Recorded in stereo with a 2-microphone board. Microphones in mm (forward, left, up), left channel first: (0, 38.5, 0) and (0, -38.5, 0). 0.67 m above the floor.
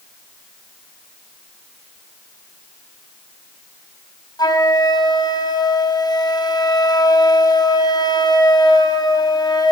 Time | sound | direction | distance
4.4 | a flute | 65° left (ahead or behind) | 4 m